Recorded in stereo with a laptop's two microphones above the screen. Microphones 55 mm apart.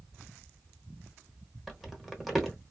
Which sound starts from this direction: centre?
Crumpling, at 1.7 s.